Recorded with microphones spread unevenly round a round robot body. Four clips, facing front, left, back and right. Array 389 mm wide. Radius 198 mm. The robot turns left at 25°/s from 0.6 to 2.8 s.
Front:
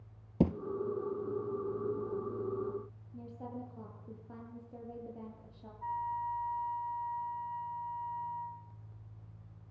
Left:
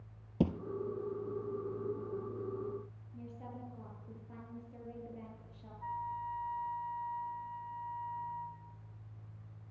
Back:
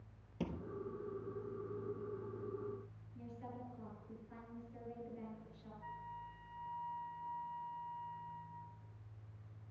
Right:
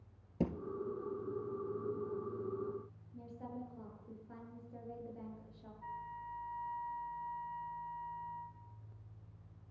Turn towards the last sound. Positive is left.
turn(degrees=30)